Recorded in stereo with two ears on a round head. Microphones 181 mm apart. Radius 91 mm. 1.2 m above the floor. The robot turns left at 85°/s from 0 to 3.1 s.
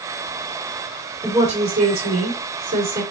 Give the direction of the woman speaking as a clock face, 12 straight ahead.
12 o'clock.